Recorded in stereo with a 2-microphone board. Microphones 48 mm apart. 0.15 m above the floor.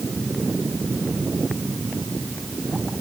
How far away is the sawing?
No sawing in this recording.